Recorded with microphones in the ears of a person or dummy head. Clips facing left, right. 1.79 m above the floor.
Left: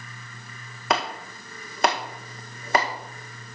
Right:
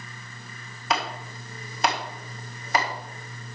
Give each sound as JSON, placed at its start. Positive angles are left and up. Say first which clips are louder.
{"t": 0.9, "sound": "chopping", "louder": "left 2 dB", "side_deg": 60, "distance_m": 1.7}